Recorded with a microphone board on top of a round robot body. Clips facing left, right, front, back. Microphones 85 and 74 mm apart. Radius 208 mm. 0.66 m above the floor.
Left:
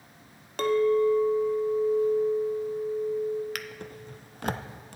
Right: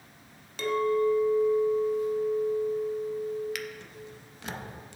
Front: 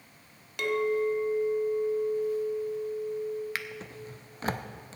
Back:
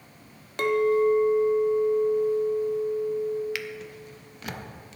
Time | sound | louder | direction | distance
0.6 | a clink | left 3 dB, back 6 dB | 125° left | 0.9 m
3.5 | a drawer | even, back 3 dB | 50° left | 0.6 m